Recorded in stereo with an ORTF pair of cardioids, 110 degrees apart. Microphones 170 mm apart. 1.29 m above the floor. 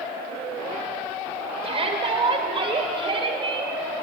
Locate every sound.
1.6 s a shout: 35° right, 4.5 m; by 3.7 s 30° right, 6 m